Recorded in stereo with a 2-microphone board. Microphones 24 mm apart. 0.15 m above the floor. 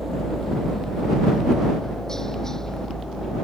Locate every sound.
0.0 s a helicopter: 15° left (ahead or behind); by 3.5 s 30° left (ahead or behind)